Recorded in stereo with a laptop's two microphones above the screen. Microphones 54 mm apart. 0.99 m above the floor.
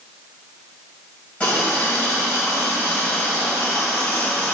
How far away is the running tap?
About 3.5 m.